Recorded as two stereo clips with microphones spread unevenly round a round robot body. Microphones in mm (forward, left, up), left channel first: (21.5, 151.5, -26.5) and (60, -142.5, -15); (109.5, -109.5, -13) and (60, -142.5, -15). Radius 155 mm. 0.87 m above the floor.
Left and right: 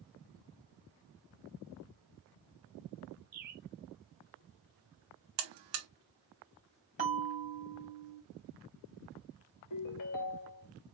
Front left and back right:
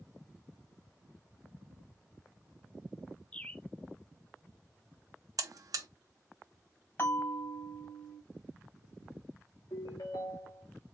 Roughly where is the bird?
Ahead right.